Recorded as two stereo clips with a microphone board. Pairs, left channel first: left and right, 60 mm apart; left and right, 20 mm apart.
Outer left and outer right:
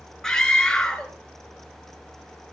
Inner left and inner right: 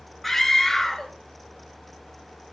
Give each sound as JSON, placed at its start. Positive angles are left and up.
{"t": 0.2, "sound": "a scream", "side_deg": 10, "distance_m": 4.0}